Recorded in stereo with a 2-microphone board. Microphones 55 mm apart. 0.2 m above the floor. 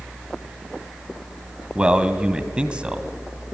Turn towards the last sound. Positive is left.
turn(degrees=-20)  # may be behind; listen again after turning